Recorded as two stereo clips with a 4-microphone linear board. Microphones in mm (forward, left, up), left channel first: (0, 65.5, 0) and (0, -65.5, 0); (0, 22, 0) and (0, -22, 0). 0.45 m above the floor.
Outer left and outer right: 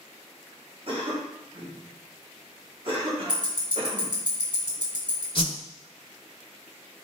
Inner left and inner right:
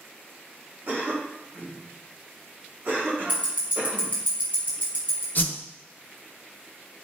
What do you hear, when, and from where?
0.9 s a cough: 45° right (ahead or behind), 1.0 m
3.3 s ticking: 40° right (ahead or behind), 1.0 m
5.3 s a whoosh: 40° left (ahead or behind), 0.9 m